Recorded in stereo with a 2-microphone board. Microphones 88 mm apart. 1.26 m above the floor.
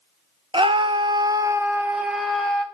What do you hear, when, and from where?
0.5 s a scream: 80° right, 1.1 m; by 2.6 s 10° left (ahead or behind), 1.4 m